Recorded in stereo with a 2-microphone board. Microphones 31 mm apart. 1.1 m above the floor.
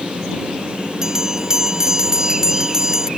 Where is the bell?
20° right (ahead or behind).